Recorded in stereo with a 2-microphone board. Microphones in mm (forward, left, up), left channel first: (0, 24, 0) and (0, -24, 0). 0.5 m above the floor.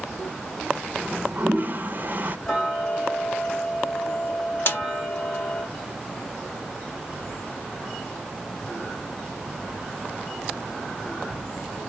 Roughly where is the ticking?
Centre.